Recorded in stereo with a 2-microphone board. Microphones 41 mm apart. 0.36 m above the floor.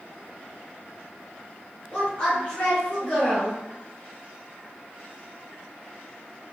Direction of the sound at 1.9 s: 20° left (ahead or behind).